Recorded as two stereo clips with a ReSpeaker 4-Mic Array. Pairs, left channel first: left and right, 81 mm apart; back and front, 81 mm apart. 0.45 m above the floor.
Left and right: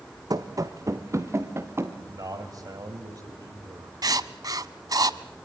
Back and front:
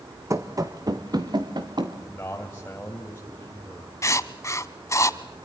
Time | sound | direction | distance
0.3 | running footsteps | 50° right | 1.5 m
2.1 | a man speaking | 120° right | 2.5 m
4.0 | writing | 130° right | 0.9 m